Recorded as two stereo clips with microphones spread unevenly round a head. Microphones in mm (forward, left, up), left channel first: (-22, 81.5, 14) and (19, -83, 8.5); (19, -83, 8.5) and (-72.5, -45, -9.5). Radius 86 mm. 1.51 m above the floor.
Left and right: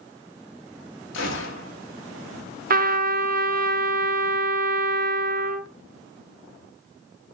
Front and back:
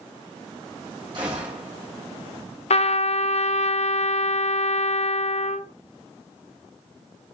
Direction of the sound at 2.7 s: 40° right.